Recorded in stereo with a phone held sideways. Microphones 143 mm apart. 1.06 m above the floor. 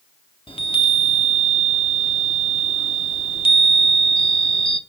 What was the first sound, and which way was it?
A chime, 40° left (ahead or behind).